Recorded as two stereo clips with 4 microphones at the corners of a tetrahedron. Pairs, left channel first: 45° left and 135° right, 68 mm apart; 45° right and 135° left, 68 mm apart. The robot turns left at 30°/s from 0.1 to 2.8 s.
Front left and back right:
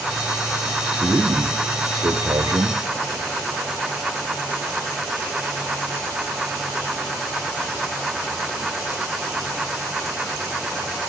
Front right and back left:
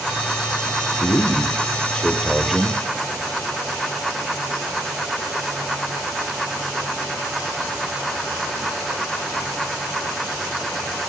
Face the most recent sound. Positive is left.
turn(degrees=-145)